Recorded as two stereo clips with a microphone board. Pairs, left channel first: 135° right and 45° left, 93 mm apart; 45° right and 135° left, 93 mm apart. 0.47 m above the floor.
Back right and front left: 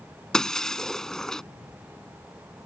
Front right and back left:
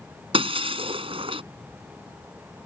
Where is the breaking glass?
140° left.